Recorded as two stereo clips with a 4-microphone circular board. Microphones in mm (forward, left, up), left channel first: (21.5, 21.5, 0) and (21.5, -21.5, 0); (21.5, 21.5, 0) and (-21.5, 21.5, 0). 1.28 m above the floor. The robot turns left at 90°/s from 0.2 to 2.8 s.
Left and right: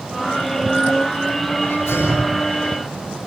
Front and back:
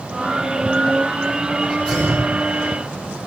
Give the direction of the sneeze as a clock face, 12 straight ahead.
9 o'clock.